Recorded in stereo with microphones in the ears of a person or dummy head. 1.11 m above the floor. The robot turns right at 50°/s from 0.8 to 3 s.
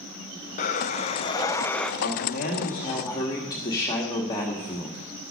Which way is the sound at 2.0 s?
110° left.